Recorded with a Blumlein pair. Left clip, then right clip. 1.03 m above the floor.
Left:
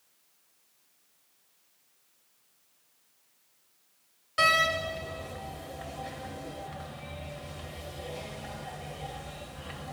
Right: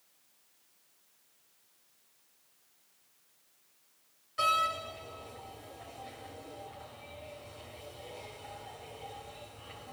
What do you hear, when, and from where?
4.4 s a door slam: 60° left, 1.0 m